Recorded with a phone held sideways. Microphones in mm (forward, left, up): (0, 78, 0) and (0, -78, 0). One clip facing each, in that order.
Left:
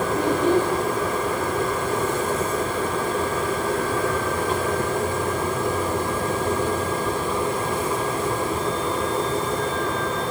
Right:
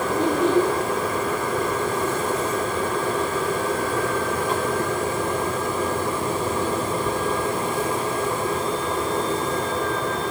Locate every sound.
0.1 s a child speaking: 30° right (ahead or behind), 4 m